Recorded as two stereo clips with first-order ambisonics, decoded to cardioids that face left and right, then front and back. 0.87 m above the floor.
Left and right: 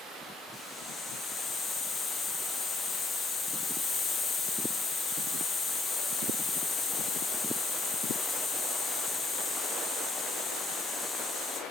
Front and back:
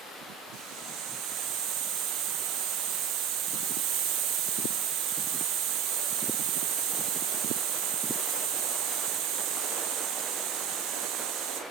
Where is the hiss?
160° left, 1.9 m.